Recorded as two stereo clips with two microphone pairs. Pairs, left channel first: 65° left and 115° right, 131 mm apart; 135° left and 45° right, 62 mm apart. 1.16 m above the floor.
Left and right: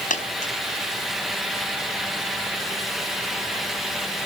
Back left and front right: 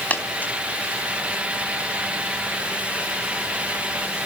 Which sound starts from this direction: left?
A dropped coin, at 0.1 s.